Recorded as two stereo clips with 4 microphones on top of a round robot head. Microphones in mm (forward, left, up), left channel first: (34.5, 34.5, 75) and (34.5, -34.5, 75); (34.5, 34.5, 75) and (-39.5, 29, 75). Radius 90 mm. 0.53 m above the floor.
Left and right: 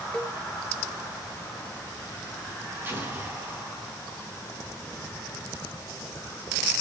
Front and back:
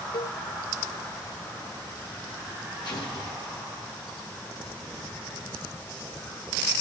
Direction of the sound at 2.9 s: 30° right.